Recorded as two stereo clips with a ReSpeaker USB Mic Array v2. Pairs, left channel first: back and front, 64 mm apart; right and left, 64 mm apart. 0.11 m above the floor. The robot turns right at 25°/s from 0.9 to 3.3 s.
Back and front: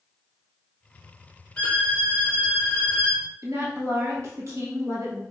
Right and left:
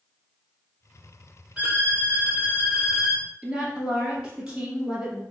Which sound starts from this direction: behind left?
A violin, at 1.6 s.